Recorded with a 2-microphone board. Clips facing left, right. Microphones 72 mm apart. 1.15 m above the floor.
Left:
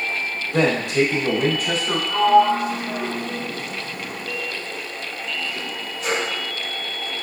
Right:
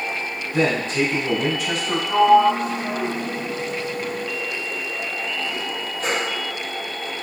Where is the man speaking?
85° left, 1.2 m; by 2.0 s 20° left (ahead or behind), 1.0 m.